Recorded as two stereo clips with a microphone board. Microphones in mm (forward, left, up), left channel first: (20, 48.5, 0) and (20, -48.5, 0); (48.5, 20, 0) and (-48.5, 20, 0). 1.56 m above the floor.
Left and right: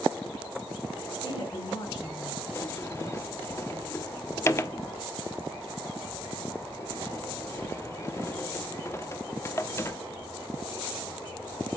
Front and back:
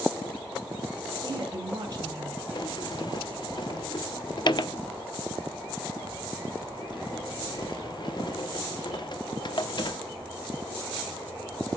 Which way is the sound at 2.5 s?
30° left.